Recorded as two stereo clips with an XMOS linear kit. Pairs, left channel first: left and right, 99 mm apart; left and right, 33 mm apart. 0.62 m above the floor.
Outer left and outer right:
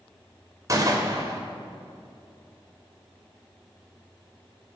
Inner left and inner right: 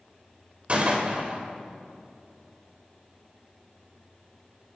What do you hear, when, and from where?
0.7 s a gunshot: 35° right (ahead or behind), 2.5 m